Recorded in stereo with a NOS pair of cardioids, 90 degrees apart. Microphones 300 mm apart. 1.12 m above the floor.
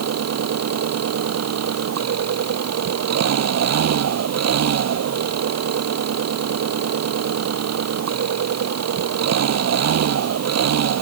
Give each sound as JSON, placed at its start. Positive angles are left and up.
{"t": 0.0, "sound": "an engine running", "azimuth_deg": -55}